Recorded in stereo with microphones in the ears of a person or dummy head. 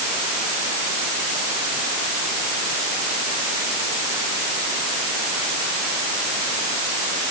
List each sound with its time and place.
Only background noise.